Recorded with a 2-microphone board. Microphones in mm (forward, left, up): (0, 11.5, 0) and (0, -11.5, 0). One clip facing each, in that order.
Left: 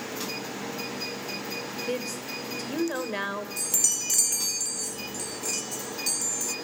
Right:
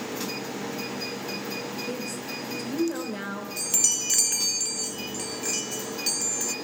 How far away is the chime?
About 0.7 m.